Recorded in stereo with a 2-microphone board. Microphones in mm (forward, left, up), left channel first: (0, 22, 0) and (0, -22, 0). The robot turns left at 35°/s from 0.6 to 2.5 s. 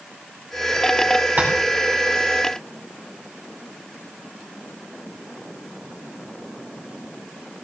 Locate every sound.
1.4 s tapping: 40° right (ahead or behind), 4.5 m; by 1.5 s 45° right (ahead or behind), 4.5 m